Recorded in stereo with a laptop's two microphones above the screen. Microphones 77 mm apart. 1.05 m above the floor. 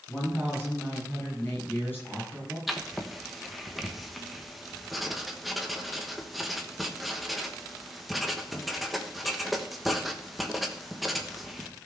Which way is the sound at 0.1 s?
25° left (ahead or behind).